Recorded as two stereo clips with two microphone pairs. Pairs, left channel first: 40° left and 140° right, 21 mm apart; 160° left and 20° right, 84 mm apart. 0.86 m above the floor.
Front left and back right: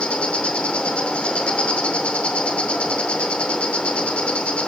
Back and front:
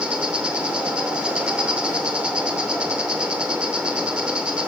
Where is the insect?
55° left, 0.7 m.